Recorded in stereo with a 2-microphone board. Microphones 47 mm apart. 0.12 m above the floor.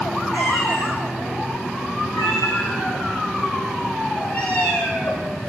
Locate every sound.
0.3 s a cat meowing: 80° left, 5 m; by 5.3 s 50° left (ahead or behind), 8 m